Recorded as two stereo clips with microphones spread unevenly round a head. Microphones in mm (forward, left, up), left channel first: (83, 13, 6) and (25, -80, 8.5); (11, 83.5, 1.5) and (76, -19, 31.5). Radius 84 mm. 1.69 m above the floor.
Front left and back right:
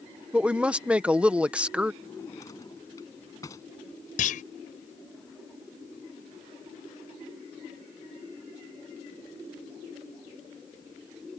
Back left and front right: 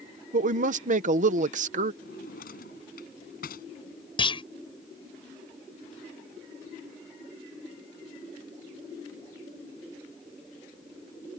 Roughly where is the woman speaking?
Ahead right.